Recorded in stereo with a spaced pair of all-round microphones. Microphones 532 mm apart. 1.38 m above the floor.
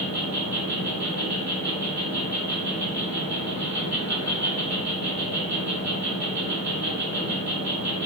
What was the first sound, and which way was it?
An insect, 30° right (ahead or behind).